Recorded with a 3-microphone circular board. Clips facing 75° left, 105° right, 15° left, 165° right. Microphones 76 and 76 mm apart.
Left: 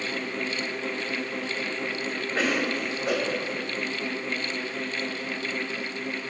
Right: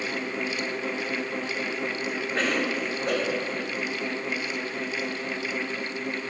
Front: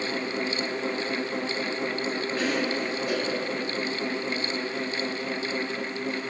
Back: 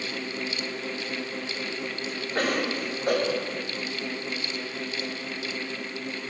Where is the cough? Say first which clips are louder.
Left 1 dB, back 2 dB; 160° left, 5 m.